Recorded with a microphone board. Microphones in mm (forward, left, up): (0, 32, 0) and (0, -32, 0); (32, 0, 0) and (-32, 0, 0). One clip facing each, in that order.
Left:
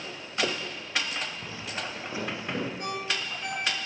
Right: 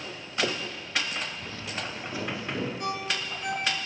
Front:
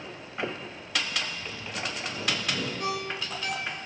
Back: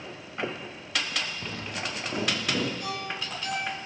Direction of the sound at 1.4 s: 165° left.